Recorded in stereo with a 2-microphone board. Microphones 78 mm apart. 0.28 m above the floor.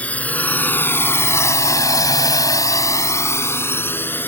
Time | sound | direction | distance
0.0 | a drone | 20° left (ahead or behind) | ?